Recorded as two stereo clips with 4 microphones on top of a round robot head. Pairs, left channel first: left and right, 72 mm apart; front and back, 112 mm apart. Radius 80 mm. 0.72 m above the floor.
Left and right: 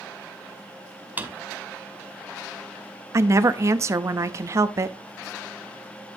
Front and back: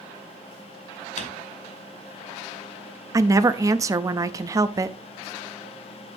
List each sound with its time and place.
1.2 s a drawer: 25° right, 1.8 m
3.1 s a woman speaking: 125° right, 0.8 m